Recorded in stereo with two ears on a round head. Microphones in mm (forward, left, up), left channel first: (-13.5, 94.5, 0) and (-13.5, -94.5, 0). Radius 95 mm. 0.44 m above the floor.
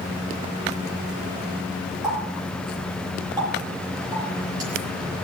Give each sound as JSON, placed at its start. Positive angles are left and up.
{"t": 2.0, "sound": "a running tap", "side_deg": -20, "distance_m": 7.0}